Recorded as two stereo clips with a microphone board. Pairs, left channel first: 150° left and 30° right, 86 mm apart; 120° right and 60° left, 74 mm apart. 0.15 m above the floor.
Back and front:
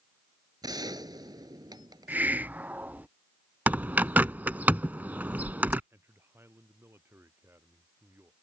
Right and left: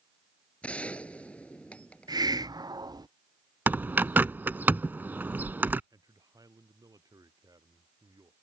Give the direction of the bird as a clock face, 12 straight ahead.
11 o'clock.